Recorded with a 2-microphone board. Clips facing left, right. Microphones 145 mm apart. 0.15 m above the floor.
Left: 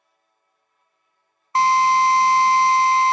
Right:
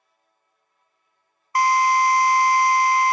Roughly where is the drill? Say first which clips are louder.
Left 2 dB; left.